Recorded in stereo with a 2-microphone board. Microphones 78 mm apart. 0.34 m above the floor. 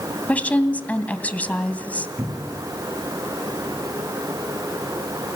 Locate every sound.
0.3 s a woman speaking: 20° left (ahead or behind), 2.5 m
2.2 s a cupboard door: 20° right (ahead or behind), 6 m